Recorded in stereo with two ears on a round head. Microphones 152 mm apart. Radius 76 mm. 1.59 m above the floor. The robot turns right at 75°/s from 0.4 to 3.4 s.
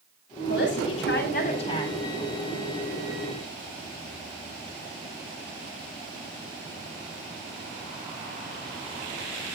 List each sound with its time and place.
0.5 s a woman speaking: 60° left, 9 m; by 1.9 s 170° left, 9 m